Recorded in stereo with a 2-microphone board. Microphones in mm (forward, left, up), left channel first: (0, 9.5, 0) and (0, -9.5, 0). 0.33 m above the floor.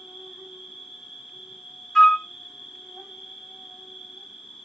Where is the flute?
25° left (ahead or behind), 0.7 m.